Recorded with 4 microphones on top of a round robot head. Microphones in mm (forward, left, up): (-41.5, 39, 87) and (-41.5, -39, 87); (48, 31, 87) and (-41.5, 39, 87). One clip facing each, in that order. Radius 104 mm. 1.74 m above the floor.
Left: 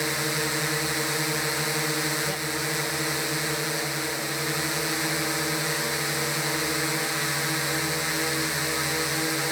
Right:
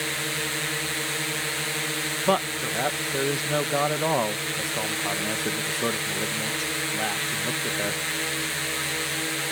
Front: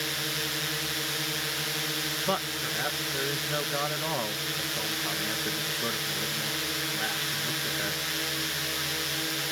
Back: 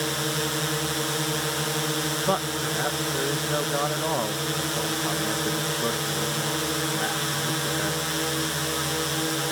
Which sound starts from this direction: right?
A man speaking, at 2.3 s.